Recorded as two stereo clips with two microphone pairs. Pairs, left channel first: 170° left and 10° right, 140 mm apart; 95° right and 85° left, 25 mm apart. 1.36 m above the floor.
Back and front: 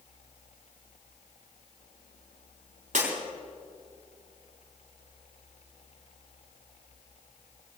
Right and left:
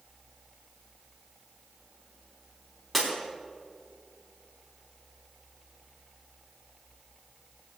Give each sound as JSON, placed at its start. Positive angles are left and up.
{"t": 2.9, "sound": "breaking glass", "azimuth_deg": -15, "distance_m": 4.0}